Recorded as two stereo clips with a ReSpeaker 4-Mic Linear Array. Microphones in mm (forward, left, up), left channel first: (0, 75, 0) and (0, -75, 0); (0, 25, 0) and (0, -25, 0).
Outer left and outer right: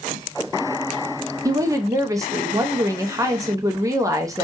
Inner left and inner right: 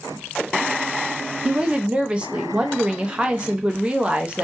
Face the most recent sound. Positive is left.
turn(degrees=-20)  # may be behind; listen again after turning